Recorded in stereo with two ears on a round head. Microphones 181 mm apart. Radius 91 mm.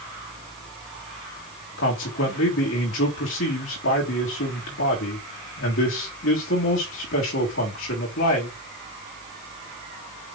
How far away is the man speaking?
About 3.5 m.